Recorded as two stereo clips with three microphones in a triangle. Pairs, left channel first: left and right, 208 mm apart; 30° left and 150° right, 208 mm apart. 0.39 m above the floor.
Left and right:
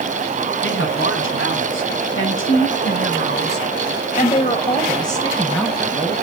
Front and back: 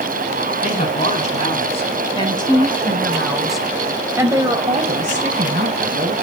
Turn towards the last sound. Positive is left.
turn(degrees=180)